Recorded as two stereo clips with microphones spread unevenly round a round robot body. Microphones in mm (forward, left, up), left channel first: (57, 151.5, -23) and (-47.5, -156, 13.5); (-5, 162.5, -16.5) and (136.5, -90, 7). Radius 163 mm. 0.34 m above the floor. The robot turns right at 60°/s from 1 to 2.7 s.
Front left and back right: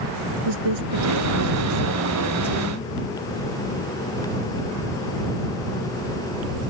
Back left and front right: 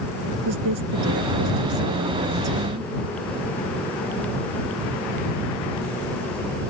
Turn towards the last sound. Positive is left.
turn(degrees=0)